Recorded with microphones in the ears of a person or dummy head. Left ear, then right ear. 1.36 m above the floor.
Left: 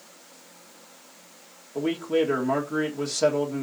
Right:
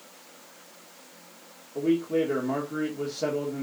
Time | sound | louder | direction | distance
1.8 | a man speaking | left 1 dB | 75° left (ahead or behind) | 1.9 m